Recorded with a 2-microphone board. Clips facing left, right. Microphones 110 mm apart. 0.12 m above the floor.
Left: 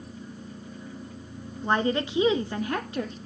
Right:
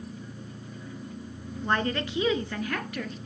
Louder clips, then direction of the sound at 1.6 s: Left 3 dB; 15° left (ahead or behind).